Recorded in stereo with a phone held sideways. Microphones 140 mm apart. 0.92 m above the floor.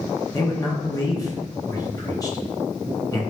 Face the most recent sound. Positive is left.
turn(degrees=25)  # may be behind; listen again after turning